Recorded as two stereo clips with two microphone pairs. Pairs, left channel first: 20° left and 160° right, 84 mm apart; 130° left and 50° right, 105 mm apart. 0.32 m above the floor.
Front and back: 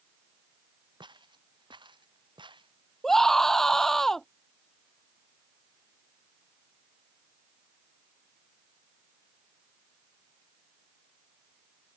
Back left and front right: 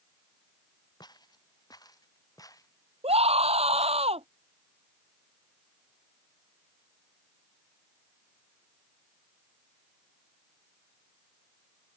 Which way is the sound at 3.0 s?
65° right.